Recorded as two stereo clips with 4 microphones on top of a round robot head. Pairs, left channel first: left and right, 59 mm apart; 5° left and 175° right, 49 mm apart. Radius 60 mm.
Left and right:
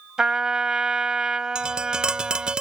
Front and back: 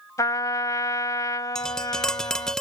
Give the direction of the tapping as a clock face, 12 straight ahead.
1 o'clock.